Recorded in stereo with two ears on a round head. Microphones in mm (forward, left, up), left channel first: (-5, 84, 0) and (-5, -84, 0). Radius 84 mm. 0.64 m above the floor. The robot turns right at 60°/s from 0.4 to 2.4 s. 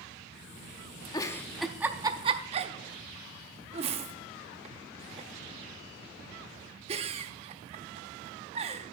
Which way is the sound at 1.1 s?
20° left (ahead or behind).